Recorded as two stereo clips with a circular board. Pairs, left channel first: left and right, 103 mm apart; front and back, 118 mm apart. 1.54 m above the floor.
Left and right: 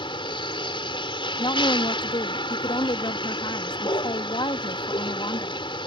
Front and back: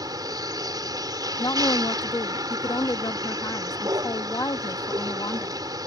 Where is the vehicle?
125° left.